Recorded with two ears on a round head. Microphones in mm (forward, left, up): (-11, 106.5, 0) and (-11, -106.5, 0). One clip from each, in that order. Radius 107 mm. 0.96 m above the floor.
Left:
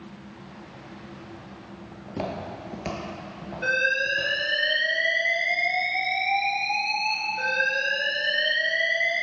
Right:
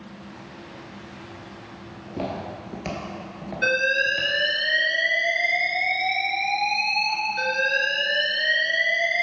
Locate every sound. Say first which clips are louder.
1.9 s footsteps: right 1 dB; 20° left (ahead or behind), 1.2 m; by 4.3 s 40° right (ahead or behind), 1.3 m
3.6 s an alarm: right 2 dB; 55° right (ahead or behind), 2.5 m